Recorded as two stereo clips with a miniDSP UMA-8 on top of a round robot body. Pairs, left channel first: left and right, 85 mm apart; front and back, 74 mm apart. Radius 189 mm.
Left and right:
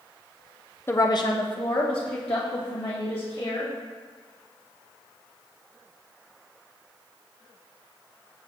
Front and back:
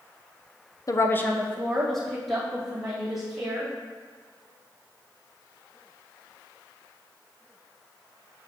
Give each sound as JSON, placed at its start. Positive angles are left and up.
{"t": 0.9, "sound": "a woman speaking", "azimuth_deg": 30, "distance_m": 0.8}